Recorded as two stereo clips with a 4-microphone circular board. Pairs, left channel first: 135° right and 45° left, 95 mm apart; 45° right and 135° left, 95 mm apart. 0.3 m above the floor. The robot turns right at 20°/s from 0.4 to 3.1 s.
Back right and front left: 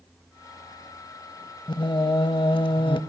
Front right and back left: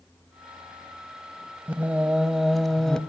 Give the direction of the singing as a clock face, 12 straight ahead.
5 o'clock.